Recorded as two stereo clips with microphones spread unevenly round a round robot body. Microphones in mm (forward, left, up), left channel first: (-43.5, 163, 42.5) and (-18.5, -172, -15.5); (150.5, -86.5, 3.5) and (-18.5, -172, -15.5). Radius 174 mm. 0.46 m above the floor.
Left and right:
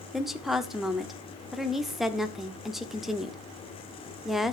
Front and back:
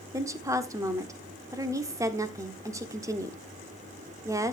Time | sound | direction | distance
0.1 | a woman speaking | 145° right | 0.7 m